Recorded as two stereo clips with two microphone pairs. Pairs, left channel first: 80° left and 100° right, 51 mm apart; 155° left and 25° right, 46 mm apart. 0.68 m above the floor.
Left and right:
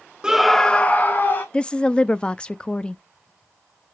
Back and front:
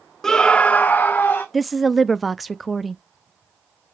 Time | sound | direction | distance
0.2 | a scream | 140° right | 0.8 m
1.5 | a woman speaking | 65° left | 0.5 m